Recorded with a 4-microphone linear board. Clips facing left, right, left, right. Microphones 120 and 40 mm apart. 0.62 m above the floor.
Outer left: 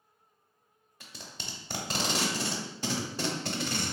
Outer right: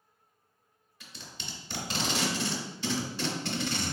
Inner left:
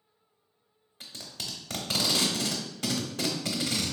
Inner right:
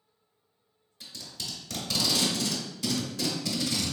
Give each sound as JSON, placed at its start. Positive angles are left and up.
{"t": 1.0, "sound": "tape being pulled", "side_deg": 45, "distance_m": 0.8}